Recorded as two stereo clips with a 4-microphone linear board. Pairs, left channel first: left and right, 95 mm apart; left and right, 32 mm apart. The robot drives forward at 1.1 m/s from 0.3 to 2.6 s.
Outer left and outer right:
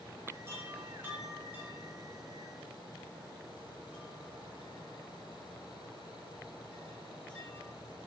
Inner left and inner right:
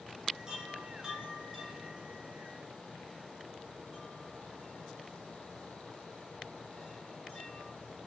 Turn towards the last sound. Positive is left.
turn(degrees=-15)  # may be behind; listen again after turning